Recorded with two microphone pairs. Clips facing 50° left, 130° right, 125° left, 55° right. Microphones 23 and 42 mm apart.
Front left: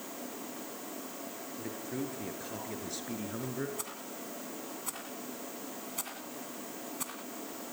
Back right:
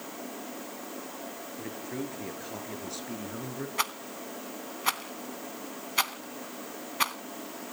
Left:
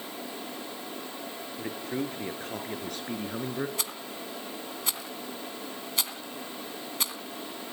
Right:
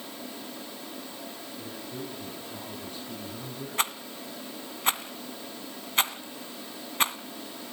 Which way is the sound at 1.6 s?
160° left.